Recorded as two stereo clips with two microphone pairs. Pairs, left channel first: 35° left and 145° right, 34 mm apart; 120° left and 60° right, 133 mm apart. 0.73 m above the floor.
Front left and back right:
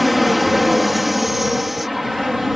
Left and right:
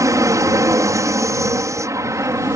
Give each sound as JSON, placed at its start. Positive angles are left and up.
{"t": 0.0, "sound": "an aircraft", "azimuth_deg": -60}